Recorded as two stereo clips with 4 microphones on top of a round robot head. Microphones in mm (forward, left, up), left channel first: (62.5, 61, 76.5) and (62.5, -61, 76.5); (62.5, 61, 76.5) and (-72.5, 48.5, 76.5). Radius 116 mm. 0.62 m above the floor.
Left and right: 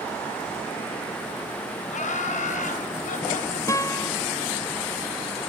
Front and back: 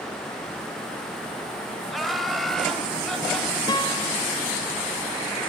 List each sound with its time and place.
1.9 s laughter: 95° left, 3.5 m; by 3.6 s 90° left, 5.5 m
3.7 s a guitar: 40° left, 1.1 m